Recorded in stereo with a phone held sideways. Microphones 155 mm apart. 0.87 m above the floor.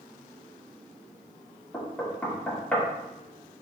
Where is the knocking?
10° left (ahead or behind), 1.0 m.